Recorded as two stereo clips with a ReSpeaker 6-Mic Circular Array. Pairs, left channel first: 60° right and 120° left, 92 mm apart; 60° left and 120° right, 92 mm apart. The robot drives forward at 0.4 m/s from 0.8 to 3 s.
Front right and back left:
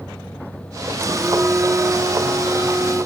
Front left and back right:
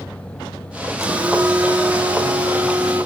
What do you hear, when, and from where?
1.0 s a phone buzzing: 175° right, 0.8 m